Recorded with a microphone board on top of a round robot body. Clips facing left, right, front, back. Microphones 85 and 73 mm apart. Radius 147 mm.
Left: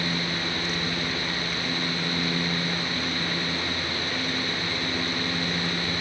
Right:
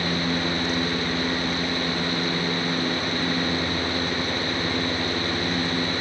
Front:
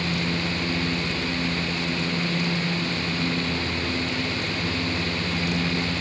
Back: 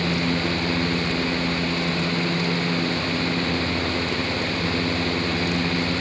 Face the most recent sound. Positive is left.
No sound to turn to.